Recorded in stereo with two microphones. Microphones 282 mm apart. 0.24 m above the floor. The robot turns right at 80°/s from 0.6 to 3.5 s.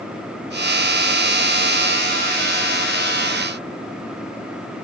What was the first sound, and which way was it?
Only background noise.